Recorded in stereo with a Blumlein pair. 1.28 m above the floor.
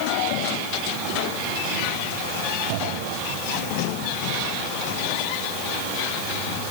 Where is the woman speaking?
No woman speaking in this recording.